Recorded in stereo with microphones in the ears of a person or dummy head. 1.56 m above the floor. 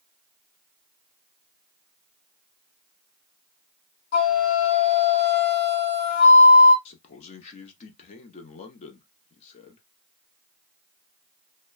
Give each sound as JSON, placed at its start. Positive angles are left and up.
{"t": 4.1, "sound": "a flute", "side_deg": 60, "distance_m": 1.3}
{"t": 6.8, "sound": "a man speaking", "side_deg": 45, "distance_m": 0.7}